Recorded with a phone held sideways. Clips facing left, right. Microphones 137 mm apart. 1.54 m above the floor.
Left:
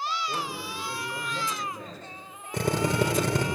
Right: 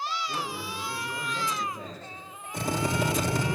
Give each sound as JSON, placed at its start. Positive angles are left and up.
{"t": 0.3, "sound": "a man speaking", "side_deg": 50, "distance_m": 7.5}
{"t": 2.5, "sound": "a drill", "side_deg": 75, "distance_m": 4.0}